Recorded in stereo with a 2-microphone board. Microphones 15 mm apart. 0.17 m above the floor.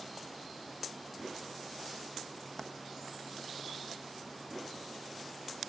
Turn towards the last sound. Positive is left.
turn(degrees=30)  # may be behind; listen again after turning